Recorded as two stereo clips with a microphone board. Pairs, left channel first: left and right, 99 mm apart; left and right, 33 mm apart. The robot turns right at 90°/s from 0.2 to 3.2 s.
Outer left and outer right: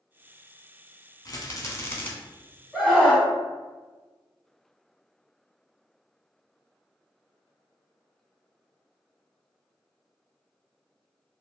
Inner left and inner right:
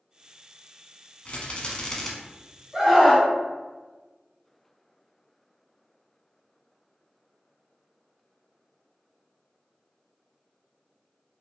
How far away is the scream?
About 1.0 m.